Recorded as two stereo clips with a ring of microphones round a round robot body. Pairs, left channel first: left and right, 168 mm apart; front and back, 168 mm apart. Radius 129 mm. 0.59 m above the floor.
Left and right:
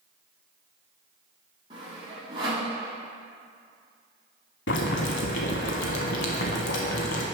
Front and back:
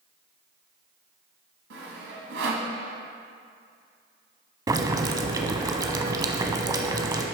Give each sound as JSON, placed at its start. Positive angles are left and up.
{"t": 1.7, "sound": "sawing", "azimuth_deg": -160, "distance_m": 1.2}
{"t": 4.7, "sound": "boiling", "azimuth_deg": 115, "distance_m": 0.8}